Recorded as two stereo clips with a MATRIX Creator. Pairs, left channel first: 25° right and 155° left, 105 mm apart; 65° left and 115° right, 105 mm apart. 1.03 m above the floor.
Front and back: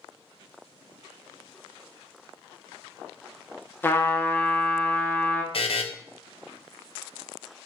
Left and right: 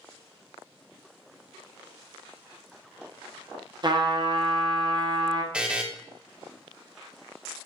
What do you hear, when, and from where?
3.8 s a trumpet: 85° right, 0.6 m
5.5 s a buzzer: 35° right, 0.5 m